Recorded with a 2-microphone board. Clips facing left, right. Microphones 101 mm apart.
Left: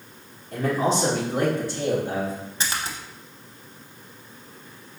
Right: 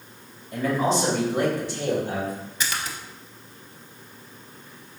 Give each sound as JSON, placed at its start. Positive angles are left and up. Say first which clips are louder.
{"t": 0.5, "sound": "a man speaking", "louder": "even", "side_deg": 65, "distance_m": 1.5}
{"t": 2.6, "sound": "a splash", "louder": "left 1 dB", "side_deg": 30, "distance_m": 0.6}